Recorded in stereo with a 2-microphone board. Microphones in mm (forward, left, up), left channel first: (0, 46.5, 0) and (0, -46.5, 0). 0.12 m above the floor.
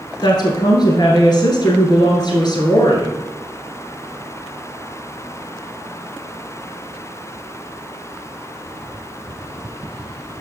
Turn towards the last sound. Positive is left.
turn(degrees=50)  # may be behind; listen again after turning